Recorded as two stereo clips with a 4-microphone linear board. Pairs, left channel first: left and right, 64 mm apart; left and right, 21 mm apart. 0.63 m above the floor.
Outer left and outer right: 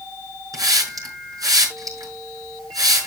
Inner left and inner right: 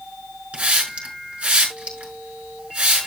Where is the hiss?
85° right, 5.5 m.